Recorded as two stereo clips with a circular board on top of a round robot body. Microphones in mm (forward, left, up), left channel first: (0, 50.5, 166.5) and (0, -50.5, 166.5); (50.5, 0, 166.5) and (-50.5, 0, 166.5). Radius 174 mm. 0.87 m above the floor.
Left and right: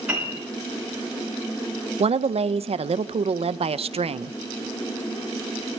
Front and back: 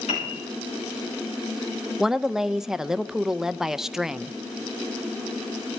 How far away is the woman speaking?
About 0.6 m.